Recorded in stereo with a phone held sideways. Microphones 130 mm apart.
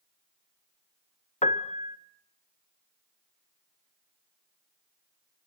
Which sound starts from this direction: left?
A piano, at 1.4 s.